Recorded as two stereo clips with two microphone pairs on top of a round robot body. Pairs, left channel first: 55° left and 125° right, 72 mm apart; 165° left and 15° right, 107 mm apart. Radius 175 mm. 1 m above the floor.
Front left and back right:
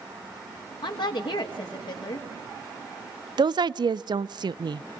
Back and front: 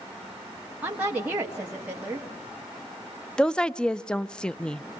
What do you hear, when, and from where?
0.8 s a woman speaking: 60° left, 1.6 m
3.4 s a woman speaking: 115° right, 0.5 m